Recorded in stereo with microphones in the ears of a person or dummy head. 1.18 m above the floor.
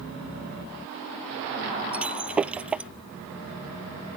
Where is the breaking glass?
10° right (ahead or behind).